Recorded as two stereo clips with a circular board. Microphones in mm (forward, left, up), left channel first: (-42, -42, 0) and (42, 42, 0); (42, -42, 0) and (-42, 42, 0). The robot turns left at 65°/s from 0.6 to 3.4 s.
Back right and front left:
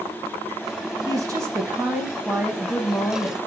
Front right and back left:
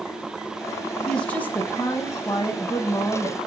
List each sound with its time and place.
1.1 s a woman speaking: 35° left, 1.1 m; by 3.4 s 115° right, 1.1 m